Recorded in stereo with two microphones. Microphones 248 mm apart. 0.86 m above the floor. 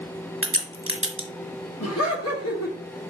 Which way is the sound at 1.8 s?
75° left (ahead or behind).